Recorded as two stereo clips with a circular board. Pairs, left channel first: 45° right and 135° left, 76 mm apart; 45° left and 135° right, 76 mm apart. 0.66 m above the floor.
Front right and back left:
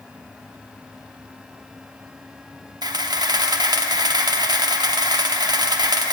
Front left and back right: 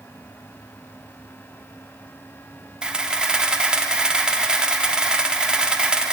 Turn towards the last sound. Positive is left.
turn(degrees=145)